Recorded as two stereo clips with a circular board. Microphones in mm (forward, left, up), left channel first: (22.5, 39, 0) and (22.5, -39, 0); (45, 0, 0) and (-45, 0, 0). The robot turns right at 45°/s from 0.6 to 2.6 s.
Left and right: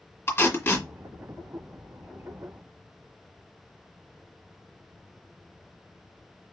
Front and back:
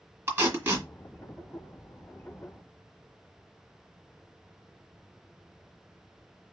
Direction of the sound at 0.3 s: 125° left.